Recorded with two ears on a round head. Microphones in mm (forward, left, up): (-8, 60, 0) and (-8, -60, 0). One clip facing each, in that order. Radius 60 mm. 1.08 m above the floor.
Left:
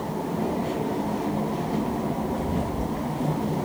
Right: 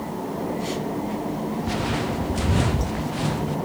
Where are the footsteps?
85° right.